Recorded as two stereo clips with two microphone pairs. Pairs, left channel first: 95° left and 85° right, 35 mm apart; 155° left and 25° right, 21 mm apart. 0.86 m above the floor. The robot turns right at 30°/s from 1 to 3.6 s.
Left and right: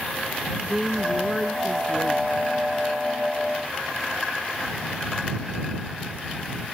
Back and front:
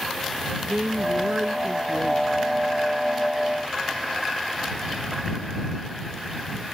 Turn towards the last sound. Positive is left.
turn(degrees=80)